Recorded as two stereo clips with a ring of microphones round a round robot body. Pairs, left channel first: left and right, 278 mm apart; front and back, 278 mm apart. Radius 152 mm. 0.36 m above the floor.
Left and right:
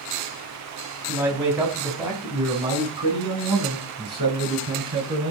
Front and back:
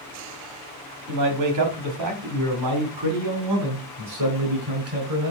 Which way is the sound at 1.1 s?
175° right.